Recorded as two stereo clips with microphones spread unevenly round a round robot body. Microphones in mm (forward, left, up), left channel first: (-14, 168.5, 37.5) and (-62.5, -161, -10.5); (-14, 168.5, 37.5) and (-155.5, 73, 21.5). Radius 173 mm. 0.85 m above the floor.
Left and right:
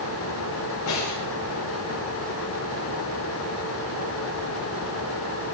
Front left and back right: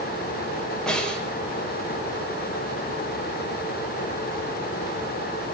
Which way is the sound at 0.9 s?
120° left.